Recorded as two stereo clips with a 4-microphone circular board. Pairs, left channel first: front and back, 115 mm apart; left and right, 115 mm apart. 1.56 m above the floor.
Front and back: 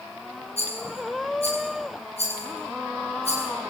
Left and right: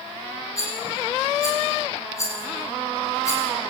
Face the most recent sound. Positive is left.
turn(degrees=25)